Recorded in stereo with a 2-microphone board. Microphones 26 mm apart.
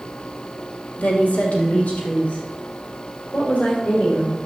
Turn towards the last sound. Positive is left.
turn(degrees=85)